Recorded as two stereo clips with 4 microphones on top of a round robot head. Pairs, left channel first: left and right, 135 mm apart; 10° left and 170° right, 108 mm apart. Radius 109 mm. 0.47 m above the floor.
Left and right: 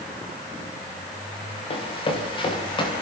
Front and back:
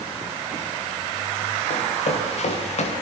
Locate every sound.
1.7 s running footsteps: 40° left, 8 m; by 2.9 s 35° left, 8 m